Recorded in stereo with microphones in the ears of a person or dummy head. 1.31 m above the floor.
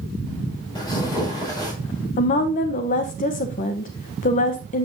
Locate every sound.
0.8 s tearing paper: 20° left (ahead or behind), 4.5 m
2.2 s a woman speaking: 40° left (ahead or behind), 1.1 m